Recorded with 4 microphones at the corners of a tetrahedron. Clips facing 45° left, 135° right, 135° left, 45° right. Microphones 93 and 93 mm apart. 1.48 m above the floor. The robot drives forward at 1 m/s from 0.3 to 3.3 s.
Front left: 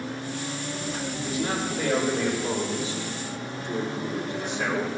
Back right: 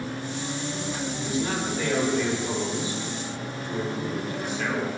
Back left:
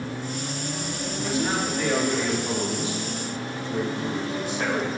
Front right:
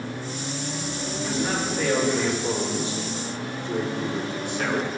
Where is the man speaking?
15° right, 6 m; by 4.9 s 20° right, 4 m.